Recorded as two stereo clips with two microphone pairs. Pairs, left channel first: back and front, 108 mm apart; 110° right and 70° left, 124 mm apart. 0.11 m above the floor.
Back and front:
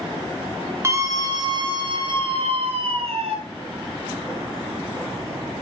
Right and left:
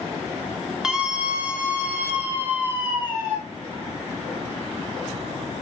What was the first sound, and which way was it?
A scream, 10° right.